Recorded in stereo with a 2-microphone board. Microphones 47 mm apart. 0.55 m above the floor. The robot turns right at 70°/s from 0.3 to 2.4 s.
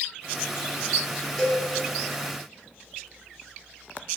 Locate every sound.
1.4 s a cowbell: 5° left (ahead or behind), 1.7 m; by 1.6 s 20° left (ahead or behind), 1.7 m